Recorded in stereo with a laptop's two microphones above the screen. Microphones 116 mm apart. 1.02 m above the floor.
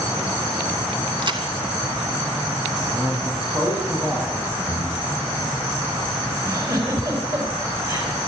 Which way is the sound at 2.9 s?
15° right (ahead or behind).